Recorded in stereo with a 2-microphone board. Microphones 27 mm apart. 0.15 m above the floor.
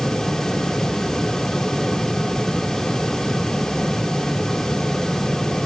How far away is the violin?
No violin in this recording.